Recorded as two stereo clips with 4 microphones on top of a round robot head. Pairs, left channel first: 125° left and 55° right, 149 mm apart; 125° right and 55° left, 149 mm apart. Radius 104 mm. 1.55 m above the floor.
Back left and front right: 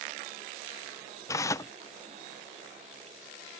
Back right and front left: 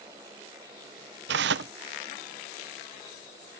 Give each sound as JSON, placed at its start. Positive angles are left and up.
{"t": 1.3, "sound": "tearing paper", "azimuth_deg": 55}